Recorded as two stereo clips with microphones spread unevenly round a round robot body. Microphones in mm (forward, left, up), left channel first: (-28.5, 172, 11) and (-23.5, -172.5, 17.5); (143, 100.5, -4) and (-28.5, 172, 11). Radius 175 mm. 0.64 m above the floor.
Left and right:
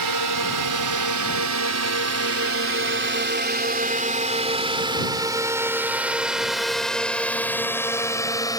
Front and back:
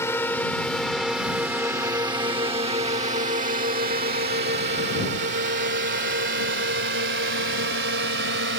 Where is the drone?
100° right; by 8.6 s 170° left.